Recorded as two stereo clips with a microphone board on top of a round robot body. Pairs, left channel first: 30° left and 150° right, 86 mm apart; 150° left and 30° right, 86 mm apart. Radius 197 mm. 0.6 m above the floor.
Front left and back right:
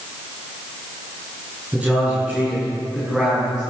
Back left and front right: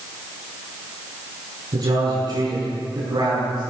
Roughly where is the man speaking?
Right.